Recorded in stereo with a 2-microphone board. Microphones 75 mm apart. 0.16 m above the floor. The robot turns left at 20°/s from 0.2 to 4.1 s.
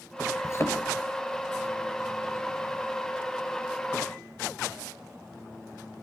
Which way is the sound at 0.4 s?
45° left (ahead or behind).